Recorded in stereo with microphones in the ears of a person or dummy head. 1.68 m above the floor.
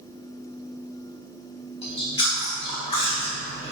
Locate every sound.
1.8 s chewing: 30° left (ahead or behind), 1.5 m